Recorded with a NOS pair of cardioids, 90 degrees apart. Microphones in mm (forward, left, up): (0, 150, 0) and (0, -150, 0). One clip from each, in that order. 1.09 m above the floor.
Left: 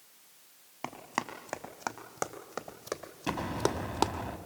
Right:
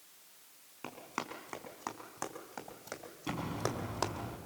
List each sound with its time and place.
0.8 s running footsteps: 50° left, 3.5 m; by 4.1 s 55° left, 1.9 m
3.3 s an explosion: 50° left, 3 m